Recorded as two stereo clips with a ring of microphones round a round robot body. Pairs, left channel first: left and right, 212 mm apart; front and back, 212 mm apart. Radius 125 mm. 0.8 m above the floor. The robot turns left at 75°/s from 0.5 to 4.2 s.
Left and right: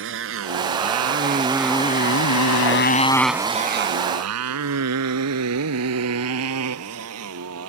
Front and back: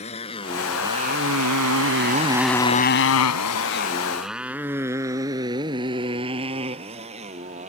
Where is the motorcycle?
65° right; by 7.7 s 115° right.